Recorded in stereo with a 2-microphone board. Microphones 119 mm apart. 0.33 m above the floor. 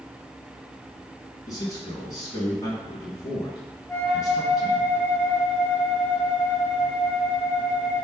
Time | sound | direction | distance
1.5 | a man speaking | 30° left (ahead or behind) | 4 m
3.9 | a flute | 10° left (ahead or behind) | 2.0 m